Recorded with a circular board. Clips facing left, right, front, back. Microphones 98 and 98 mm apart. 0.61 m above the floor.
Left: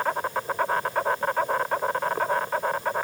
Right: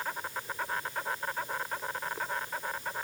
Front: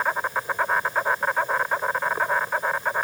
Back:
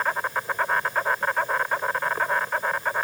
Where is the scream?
No scream in this recording.